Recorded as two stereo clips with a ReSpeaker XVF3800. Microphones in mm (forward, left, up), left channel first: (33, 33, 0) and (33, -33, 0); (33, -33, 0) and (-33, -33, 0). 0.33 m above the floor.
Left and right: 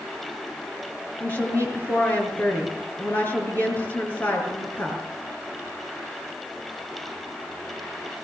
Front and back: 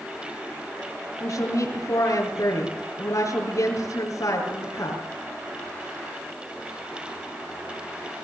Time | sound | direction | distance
1.2 | a woman speaking | 30° left | 6 m